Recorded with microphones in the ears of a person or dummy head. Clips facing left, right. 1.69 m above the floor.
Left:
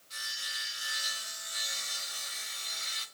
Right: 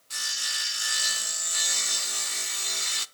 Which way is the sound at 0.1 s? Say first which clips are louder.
Right 5 dB; 80° right.